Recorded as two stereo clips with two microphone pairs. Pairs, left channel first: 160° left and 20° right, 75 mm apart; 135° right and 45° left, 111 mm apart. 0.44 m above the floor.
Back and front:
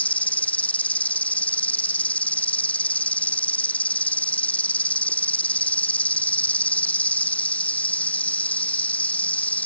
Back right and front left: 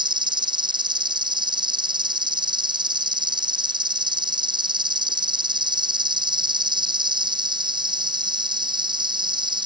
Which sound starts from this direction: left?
An insect, at 0.0 s.